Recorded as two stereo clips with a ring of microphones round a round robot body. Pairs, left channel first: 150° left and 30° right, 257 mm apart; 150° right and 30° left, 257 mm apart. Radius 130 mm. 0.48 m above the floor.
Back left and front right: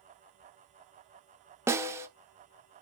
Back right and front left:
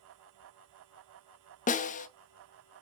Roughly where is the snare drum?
Right.